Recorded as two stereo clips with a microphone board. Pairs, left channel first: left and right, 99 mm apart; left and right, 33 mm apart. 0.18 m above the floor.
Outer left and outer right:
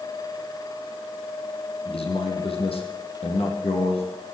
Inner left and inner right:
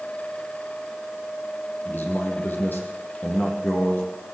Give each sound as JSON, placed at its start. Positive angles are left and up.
{"t": 1.9, "sound": "a man speaking", "side_deg": 75, "distance_m": 6.0}